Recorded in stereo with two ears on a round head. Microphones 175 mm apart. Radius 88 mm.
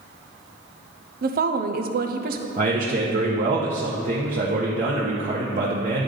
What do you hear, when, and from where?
1.2 s a woman speaking: 50° right (ahead or behind), 0.7 m
2.6 s a man speaking: 40° right (ahead or behind), 0.9 m